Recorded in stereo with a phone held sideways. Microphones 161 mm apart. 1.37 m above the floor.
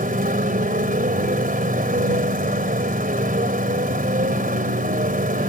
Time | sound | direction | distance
0.0 | a motorcycle | 70° right (ahead or behind) | ?